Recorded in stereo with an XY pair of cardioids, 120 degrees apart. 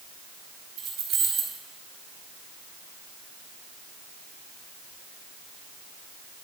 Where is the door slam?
No door slam in this recording.